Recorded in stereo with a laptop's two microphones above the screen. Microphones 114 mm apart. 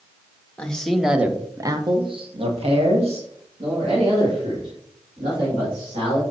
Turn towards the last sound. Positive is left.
turn(degrees=-60)  # may be behind; listen again after turning